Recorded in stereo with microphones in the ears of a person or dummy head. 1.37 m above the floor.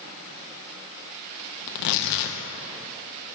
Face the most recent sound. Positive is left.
turn(degrees=60)  # may be behind; listen again after turning